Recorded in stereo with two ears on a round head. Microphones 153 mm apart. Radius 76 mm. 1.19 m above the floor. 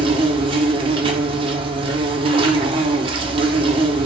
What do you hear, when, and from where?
0.0 s an insect: 30° right (ahead or behind), 0.8 m